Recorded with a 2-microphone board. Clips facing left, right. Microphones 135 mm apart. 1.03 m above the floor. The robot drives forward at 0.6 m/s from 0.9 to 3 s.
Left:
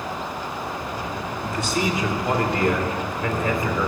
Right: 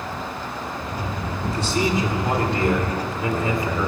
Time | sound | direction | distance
1.4 | a man speaking | 35° right (ahead or behind) | 2.5 m